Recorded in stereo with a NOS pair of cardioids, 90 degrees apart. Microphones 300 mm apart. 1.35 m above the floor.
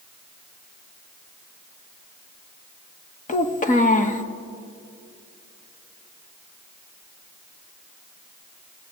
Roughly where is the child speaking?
Ahead left.